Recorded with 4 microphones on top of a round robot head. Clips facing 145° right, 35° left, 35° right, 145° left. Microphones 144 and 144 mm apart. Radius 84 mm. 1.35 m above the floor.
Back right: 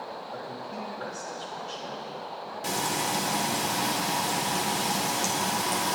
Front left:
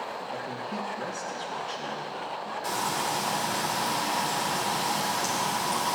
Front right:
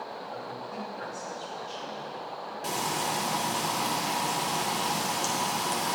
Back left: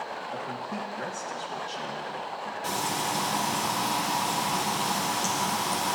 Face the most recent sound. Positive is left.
turn(degrees=-105)